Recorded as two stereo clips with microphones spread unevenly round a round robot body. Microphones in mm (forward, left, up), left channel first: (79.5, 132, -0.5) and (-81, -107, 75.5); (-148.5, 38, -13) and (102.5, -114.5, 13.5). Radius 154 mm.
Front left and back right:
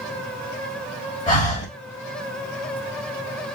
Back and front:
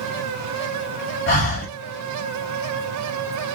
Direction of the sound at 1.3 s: 100° left.